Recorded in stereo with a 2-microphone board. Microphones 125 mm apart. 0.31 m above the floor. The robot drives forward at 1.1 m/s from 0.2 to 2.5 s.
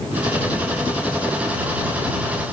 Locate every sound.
Only background noise.